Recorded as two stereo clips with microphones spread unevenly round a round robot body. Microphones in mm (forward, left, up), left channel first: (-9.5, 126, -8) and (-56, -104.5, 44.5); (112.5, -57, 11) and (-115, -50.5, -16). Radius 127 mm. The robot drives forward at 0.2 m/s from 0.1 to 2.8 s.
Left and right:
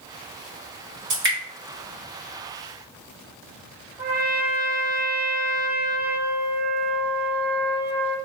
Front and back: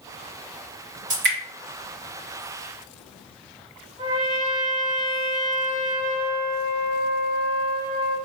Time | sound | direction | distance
1.1 | dripping | 150° right | 1.8 m
4.0 | a trumpet | 160° left | 0.9 m